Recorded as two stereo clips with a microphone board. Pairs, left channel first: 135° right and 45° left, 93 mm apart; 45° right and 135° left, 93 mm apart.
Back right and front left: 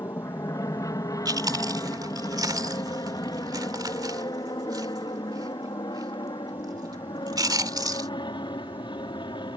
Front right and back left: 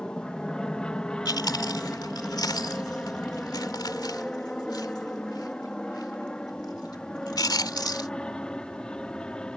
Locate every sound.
0.0 s an aircraft: 120° right
1.2 s chewing: straight ahead